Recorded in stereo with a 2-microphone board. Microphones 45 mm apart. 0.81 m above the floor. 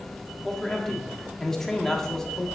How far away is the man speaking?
About 1.6 m.